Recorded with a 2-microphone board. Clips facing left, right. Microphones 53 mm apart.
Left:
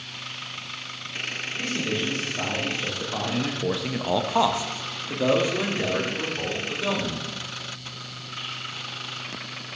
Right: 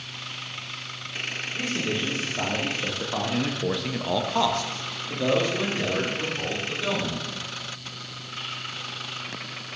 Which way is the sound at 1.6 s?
10° right (ahead or behind).